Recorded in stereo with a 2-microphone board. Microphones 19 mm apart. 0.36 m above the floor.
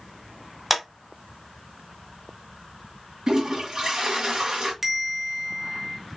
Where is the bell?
15° right (ahead or behind), 0.6 m.